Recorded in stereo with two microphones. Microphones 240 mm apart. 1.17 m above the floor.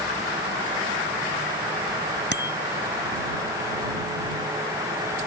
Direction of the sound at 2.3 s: 50° left (ahead or behind).